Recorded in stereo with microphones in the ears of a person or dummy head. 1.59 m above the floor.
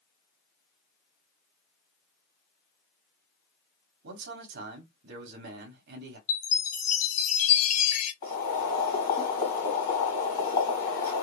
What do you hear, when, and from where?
4.0 s a man speaking: 55° right (ahead or behind), 0.6 m
6.3 s a chime: 50° left (ahead or behind), 0.6 m
8.2 s boiling: 30° left (ahead or behind), 1.7 m